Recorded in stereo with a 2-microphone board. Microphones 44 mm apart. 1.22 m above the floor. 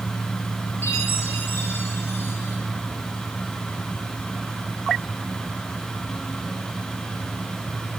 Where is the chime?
60° left (ahead or behind), 3 m.